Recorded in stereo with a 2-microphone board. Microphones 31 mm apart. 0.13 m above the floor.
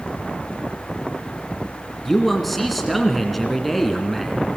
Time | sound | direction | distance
2.0 | a man speaking | centre (ahead or behind) | 1.7 m